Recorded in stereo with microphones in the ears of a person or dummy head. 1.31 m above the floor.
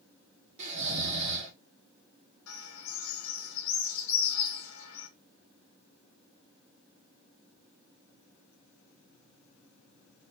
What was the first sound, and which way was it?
Snoring, 45° right (ahead or behind).